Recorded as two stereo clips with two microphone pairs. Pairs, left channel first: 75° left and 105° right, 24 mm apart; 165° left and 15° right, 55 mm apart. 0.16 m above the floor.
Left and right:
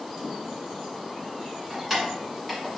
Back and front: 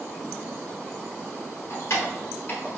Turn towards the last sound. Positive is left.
turn(degrees=170)